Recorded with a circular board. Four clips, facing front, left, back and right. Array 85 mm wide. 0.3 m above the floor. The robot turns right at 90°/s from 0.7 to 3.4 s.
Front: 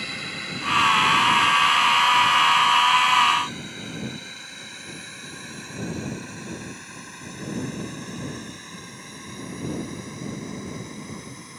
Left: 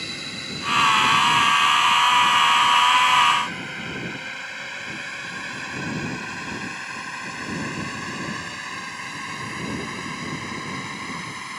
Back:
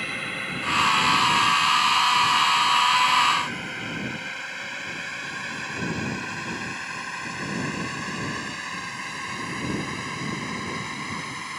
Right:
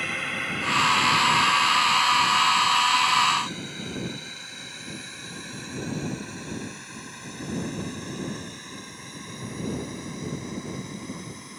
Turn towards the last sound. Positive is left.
turn(degrees=130)